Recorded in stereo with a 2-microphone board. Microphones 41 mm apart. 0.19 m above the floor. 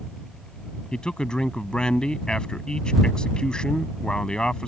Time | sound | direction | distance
0.9 | a man speaking | 20° left (ahead or behind) | ?